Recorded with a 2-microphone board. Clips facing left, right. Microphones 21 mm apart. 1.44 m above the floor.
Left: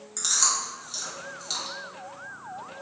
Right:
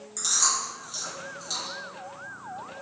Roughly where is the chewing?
Left.